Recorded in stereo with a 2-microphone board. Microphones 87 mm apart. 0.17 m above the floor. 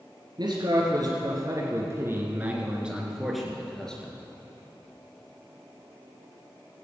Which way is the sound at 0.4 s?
55° right (ahead or behind).